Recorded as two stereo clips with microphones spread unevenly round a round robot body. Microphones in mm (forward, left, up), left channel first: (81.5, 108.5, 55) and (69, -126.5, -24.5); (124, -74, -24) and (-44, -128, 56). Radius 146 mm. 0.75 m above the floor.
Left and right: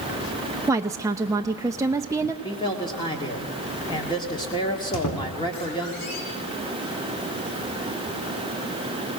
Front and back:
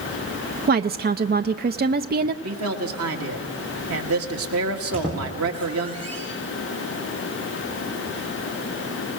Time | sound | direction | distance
0.7 | a woman speaking | 115° right | 0.6 m
2.4 | a man speaking | 170° left | 1.7 m
4.9 | a squeak | 105° left | 4 m